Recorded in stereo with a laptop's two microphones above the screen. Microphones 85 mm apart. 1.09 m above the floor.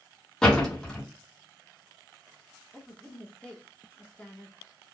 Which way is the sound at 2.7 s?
10° left (ahead or behind).